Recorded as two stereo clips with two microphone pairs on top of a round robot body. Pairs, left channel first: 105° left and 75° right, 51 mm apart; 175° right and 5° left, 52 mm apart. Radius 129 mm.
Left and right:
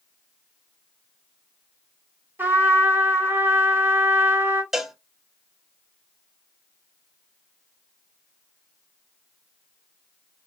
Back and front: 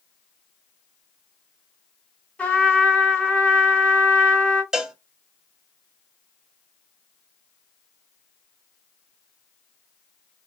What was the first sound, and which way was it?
A trumpet, 100° right.